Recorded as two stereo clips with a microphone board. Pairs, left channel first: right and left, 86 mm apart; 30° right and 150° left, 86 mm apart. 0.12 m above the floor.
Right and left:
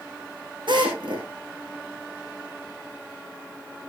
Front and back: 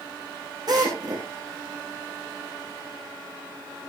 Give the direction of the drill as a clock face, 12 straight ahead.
8 o'clock.